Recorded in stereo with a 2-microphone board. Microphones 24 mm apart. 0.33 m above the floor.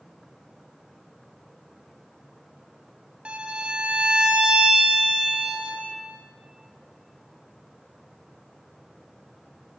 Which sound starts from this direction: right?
A violin, at 3.2 s.